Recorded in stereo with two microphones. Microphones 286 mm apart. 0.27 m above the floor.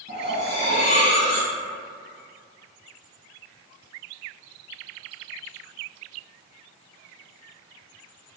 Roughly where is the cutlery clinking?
Right.